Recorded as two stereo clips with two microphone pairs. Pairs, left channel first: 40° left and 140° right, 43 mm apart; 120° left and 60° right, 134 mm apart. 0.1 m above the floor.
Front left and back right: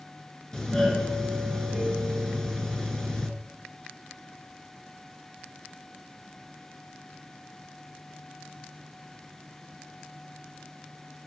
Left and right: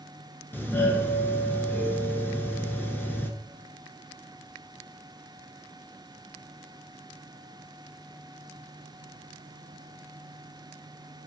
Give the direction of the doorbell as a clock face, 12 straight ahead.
9 o'clock.